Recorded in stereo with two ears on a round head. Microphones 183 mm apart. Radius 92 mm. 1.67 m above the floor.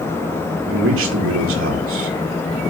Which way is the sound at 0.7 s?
70° right (ahead or behind).